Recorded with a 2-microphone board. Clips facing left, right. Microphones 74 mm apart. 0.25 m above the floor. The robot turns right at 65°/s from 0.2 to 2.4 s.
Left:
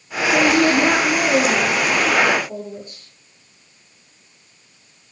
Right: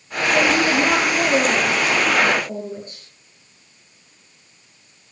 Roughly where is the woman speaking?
Left.